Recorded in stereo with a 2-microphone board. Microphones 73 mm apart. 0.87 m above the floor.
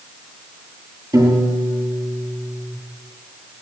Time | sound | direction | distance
1.1 | a piano | 55° right (ahead or behind) | 9.5 m